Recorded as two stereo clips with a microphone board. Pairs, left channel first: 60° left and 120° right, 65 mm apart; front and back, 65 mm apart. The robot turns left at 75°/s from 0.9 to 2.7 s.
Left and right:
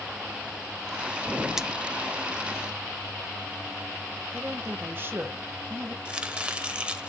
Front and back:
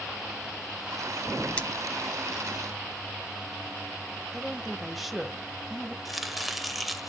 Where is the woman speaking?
95° right, 1.2 m.